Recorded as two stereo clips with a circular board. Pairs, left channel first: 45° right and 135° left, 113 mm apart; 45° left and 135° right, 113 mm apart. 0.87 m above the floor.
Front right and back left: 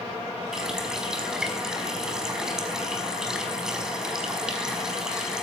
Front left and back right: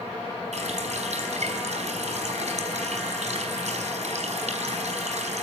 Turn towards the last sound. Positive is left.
turn(degrees=-140)